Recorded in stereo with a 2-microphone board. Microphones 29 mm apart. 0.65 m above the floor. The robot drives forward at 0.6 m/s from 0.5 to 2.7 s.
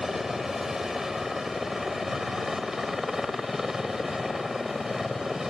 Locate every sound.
0.0 s a helicopter: 15° right (ahead or behind)